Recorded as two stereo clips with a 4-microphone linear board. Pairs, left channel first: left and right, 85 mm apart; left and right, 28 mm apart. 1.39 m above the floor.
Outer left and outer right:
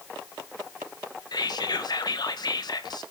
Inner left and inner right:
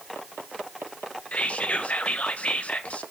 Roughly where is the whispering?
Left.